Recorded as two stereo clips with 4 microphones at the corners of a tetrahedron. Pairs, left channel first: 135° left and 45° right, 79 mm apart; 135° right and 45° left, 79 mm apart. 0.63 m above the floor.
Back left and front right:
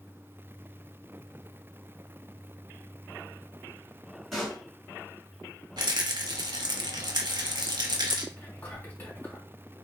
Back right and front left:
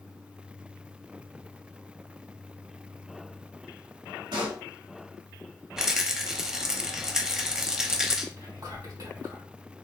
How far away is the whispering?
About 2 m.